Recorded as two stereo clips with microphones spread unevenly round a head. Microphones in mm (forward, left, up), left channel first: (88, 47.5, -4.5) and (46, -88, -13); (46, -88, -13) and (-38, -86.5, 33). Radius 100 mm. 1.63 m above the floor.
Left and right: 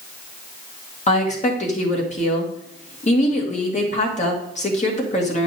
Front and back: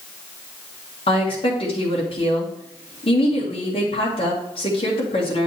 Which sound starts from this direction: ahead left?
A woman speaking, at 1.1 s.